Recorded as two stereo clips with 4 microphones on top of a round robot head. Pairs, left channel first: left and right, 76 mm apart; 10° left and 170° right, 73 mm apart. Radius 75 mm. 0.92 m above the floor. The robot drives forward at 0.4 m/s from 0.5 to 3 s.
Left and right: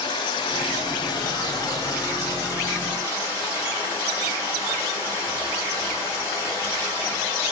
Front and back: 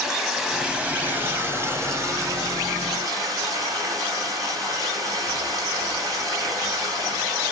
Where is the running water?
105° left, 0.7 m; by 7.5 s 150° left, 1.4 m.